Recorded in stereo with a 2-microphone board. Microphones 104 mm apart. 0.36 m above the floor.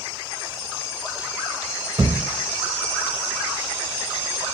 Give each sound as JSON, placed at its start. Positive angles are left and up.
{"t": 2.0, "sound": "a thud", "side_deg": -35, "distance_m": 0.8}